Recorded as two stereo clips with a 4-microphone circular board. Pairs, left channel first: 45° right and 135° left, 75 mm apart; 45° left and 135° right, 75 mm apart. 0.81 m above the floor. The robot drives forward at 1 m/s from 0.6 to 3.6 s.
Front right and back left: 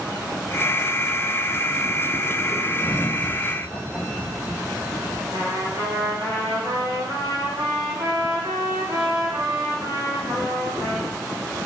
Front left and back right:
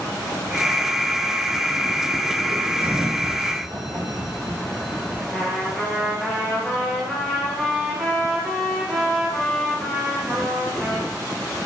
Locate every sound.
2.8 s a sliding door: 90° right, 1.8 m; by 5.2 s 115° right, 1.9 m
5.3 s a trumpet: 130° left, 3 m